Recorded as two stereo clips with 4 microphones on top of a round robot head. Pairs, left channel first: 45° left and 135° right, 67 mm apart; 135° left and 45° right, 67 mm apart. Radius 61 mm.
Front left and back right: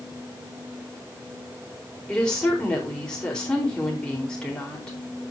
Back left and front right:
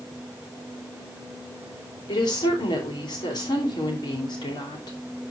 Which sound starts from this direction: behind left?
A woman speaking, at 2.1 s.